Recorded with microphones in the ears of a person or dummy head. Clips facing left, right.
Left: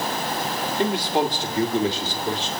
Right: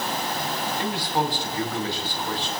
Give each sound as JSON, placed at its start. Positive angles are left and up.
{"t": 0.8, "sound": "a man speaking", "side_deg": 20, "distance_m": 1.4}